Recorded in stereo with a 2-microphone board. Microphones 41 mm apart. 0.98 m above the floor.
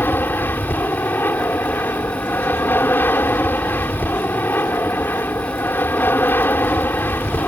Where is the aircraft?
60° left (ahead or behind).